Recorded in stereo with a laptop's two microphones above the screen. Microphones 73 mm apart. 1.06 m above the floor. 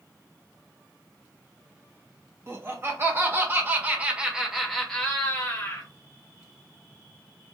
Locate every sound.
2.5 s laughter: 35° right (ahead or behind), 1.4 m; by 5.9 s 30° left (ahead or behind), 0.9 m